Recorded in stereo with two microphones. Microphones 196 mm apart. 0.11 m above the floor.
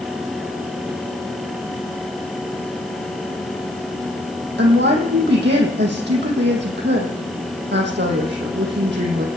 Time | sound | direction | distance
4.6 | a woman speaking | 65° right (ahead or behind) | 4.5 m